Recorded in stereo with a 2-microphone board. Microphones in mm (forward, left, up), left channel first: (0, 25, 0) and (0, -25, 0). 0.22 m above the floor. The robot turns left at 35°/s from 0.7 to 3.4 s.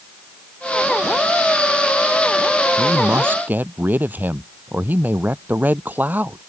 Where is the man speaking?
60° right (ahead or behind); by 6.4 s 35° right (ahead or behind).